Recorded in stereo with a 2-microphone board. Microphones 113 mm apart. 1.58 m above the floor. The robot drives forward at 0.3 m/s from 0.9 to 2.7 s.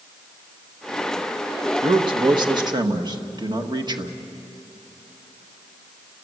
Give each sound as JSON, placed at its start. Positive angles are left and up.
{"t": 1.8, "sound": "a man speaking", "side_deg": -45, "distance_m": 1.5}